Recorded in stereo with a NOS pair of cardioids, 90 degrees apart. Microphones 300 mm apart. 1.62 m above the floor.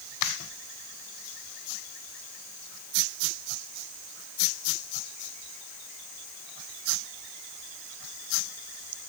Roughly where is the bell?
I don't hear a bell.